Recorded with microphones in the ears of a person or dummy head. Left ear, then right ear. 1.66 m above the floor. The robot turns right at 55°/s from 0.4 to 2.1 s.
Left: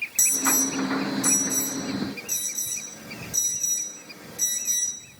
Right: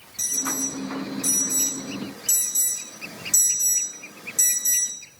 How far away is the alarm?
About 5 m.